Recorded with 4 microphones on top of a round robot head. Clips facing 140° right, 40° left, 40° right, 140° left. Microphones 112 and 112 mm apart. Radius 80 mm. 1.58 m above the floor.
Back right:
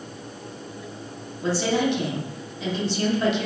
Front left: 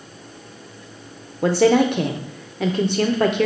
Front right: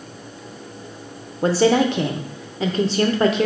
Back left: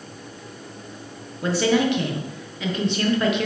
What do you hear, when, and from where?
1.4 s a woman speaking: 10° left, 0.5 m